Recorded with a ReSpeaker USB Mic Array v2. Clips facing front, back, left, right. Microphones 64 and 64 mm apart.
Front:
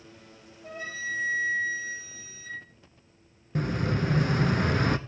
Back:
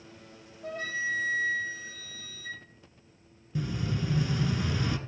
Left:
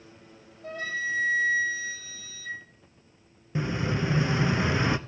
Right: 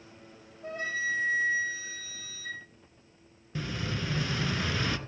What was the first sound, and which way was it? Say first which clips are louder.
A flute: back 3 dB, left 1 dB; 150° right.